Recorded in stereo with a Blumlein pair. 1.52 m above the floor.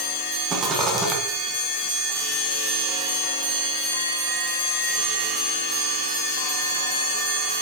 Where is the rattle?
20° right, 1.5 m.